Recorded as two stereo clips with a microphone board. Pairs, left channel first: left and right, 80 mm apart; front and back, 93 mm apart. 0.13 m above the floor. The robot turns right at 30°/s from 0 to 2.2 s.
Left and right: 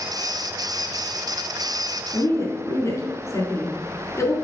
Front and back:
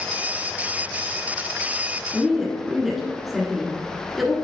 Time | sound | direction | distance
2.1 | a woman speaking | 90° left | 1.4 m